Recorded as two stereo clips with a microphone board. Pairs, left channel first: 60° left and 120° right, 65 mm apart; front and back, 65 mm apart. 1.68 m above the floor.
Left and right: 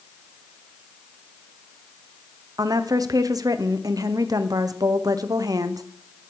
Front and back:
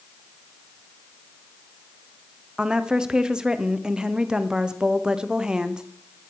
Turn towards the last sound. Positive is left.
turn(degrees=-100)